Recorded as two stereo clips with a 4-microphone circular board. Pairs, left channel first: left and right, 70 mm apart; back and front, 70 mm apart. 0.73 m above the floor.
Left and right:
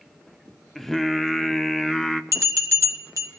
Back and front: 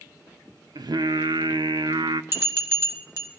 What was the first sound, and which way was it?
Singing, 5° left.